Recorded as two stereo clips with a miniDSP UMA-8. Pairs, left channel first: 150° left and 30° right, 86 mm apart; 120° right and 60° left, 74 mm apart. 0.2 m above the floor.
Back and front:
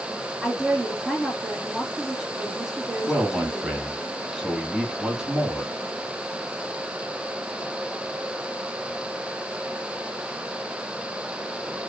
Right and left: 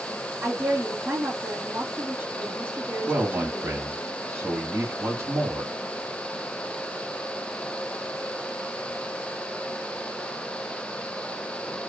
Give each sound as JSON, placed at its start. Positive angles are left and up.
{"t": 0.4, "sound": "a woman speaking", "azimuth_deg": 55, "distance_m": 1.7}
{"t": 3.1, "sound": "a man speaking", "azimuth_deg": 50, "distance_m": 1.2}